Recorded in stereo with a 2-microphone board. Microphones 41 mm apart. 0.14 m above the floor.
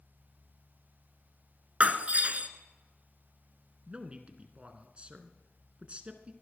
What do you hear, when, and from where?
1.8 s breaking glass: 35° right (ahead or behind), 1.1 m
3.9 s a man speaking: 30° right (ahead or behind), 1.6 m